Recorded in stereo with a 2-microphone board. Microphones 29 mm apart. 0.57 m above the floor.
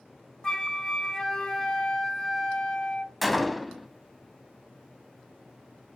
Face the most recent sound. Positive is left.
turn(degrees=0)  # may be behind; listen again after turning